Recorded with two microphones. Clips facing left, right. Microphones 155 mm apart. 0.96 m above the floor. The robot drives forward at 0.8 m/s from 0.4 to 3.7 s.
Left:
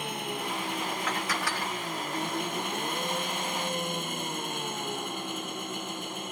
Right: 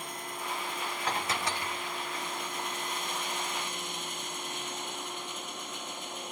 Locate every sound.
0.0 s an engine running: 75° left (ahead or behind); by 6.3 s 60° left (ahead or behind)
1.1 s dishes clattering: 35° right (ahead or behind); by 1.9 s 15° right (ahead or behind)